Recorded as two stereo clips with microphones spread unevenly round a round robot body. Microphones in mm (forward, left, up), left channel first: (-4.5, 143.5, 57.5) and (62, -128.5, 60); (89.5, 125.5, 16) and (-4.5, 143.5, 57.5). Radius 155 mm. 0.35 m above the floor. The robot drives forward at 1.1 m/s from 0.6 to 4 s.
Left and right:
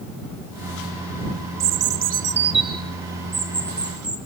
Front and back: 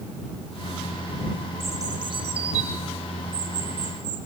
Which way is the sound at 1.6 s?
105° right.